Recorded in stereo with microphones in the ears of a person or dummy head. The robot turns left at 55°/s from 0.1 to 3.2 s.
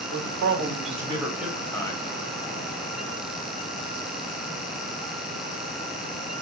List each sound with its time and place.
0.1 s a man speaking: 100° right, 1.2 m; by 2.0 s 155° left, 1.2 m